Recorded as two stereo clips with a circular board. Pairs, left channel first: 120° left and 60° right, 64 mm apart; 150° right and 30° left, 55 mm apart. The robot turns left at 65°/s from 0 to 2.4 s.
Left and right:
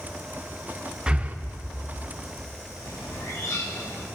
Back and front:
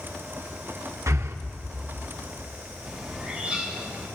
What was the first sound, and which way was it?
Breathing, 15° left.